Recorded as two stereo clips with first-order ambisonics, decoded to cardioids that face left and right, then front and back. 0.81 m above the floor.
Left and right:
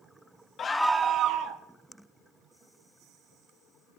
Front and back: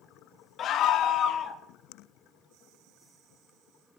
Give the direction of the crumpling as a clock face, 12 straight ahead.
I don't hear crumpling.